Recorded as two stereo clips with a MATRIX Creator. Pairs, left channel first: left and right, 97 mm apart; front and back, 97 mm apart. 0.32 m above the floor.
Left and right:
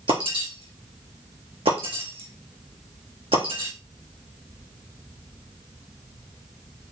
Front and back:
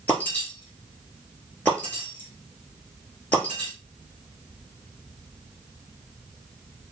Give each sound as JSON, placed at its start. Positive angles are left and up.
{"t": 0.1, "sound": "breaking glass", "azimuth_deg": -75, "distance_m": 4.0}